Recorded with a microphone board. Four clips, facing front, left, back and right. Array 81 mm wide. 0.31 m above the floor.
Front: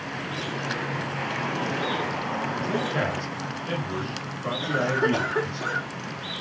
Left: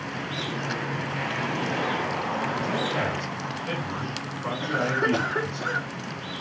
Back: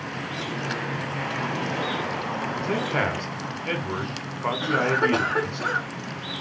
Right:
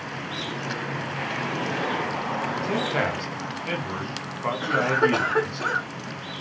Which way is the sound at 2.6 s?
145° right.